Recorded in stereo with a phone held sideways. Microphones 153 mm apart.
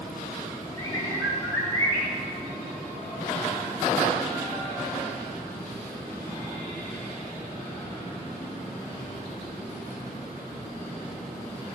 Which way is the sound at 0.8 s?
20° left (ahead or behind).